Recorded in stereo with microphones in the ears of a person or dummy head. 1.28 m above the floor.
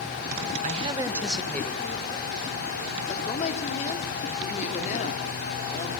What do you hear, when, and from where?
0.6 s a man speaking: 40° right (ahead or behind), 1.2 m; by 2.7 s 30° left (ahead or behind), 3.5 m
3.1 s a woman speaking: 35° left (ahead or behind), 3.5 m